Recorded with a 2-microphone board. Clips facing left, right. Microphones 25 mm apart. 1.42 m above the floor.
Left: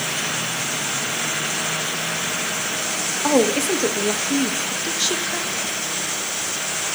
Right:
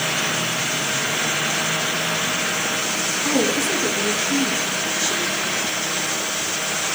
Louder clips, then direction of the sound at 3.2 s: Left 4 dB; 55° left (ahead or behind).